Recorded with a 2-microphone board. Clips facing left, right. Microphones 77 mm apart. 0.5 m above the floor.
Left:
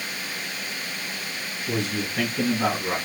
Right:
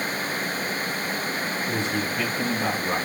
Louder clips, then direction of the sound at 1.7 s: Left 3 dB; 75° left (ahead or behind).